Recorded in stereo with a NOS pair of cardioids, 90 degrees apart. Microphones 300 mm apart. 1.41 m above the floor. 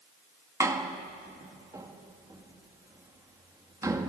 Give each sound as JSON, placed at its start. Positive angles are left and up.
{"t": 0.6, "sound": "a door slam", "azimuth_deg": -10, "distance_m": 1.7}